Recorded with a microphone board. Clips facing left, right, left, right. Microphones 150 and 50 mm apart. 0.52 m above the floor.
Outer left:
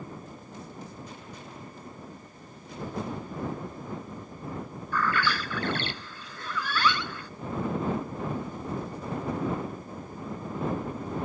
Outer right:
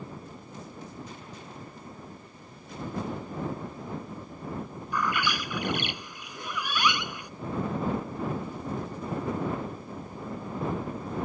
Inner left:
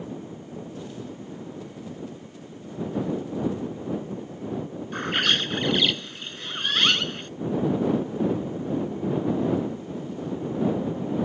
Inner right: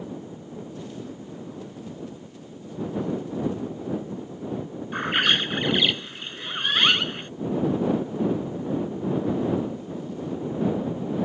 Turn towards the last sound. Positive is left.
turn(degrees=-15)  # may be behind; listen again after turning